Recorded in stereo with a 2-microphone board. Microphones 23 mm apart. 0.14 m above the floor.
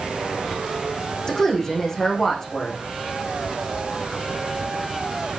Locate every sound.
1.3 s a woman speaking: 20° left (ahead or behind), 8 m